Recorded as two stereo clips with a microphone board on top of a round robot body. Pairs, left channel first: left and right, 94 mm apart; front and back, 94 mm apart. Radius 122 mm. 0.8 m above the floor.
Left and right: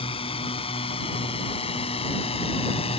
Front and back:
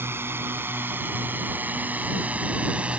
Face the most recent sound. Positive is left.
turn(degrees=105)